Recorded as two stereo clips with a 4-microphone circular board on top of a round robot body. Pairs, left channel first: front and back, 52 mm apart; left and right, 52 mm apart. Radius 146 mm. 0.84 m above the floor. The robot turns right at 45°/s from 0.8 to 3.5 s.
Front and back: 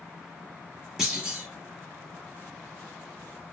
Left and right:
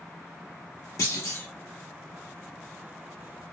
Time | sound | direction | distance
1.0 | a clunk | 100° left | 1.4 m